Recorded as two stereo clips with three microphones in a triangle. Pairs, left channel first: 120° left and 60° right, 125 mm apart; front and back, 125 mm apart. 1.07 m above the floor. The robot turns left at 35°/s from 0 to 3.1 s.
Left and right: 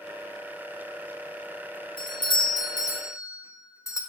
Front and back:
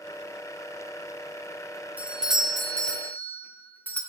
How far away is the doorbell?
About 0.7 m.